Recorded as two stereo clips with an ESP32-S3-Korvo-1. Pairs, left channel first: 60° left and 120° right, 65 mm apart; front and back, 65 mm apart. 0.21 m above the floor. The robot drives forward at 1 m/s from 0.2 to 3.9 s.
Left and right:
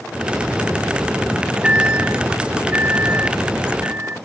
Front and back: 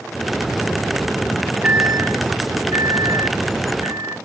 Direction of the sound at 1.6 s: 165° right.